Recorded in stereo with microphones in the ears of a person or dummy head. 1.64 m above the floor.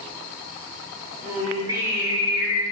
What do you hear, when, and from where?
1.2 s singing: 20° right (ahead or behind), 3 m